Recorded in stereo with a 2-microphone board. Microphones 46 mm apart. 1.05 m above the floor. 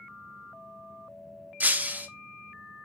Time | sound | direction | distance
1.6 | breaking glass | 35° right (ahead or behind) | 0.6 m